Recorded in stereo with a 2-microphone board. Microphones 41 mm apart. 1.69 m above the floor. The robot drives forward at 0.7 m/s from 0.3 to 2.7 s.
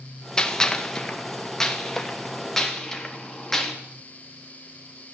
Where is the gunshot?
15° left (ahead or behind), 2 m; by 3.7 s 10° left (ahead or behind), 3.5 m.